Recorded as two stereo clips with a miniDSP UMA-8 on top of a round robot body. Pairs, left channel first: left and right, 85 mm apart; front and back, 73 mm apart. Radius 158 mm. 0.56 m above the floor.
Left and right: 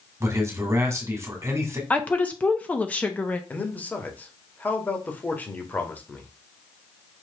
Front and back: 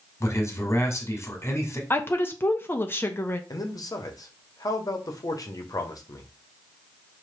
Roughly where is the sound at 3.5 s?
Ahead left.